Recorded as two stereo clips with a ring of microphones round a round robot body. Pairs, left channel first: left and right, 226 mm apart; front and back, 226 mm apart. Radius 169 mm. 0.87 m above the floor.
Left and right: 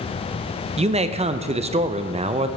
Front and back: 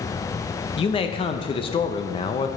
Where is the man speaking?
50° right, 0.5 m.